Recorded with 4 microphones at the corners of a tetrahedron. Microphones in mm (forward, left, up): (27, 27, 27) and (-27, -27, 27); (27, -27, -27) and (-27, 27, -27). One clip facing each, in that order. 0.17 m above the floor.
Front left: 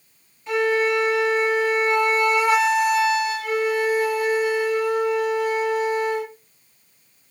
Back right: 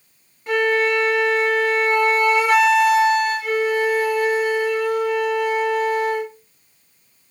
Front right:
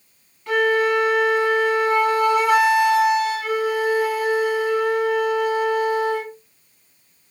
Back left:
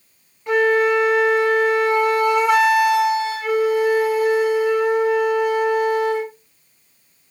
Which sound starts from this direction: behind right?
A flute, at 0.5 s.